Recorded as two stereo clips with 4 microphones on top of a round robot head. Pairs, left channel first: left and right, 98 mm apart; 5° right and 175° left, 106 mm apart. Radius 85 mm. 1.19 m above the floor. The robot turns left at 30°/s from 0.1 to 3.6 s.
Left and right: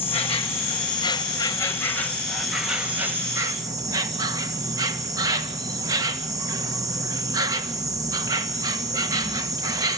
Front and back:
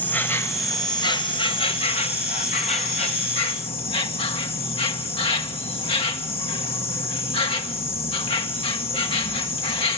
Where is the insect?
70° left, 1.5 m; by 10.0 s 35° right, 1.5 m.